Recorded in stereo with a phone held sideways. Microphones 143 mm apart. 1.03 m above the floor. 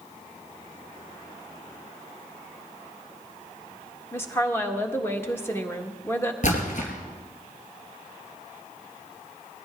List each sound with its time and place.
4.1 s a woman speaking: 15° left (ahead or behind), 1.5 m
6.4 s a splash: 60° left (ahead or behind), 3.5 m